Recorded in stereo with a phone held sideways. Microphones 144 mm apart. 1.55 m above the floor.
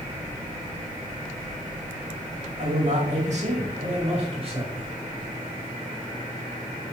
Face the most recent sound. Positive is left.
turn(degrees=-40)  # may be behind; listen again after turning